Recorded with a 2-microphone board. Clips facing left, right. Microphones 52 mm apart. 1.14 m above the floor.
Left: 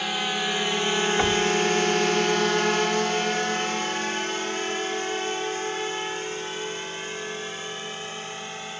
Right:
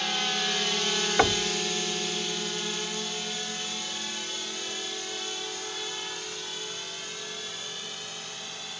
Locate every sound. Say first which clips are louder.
0.0 s a drone: left 3 dB; 10° left (ahead or behind); by 8.8 s 35° left (ahead or behind)
1.2 s knocking: right 1 dB; 25° right (ahead or behind)